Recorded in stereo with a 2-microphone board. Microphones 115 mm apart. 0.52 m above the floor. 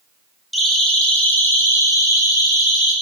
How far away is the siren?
About 3 m.